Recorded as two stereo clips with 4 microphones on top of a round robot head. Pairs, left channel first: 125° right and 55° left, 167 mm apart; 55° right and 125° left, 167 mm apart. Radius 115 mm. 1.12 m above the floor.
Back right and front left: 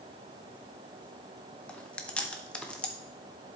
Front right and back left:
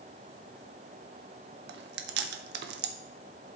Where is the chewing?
150° left, 0.6 m.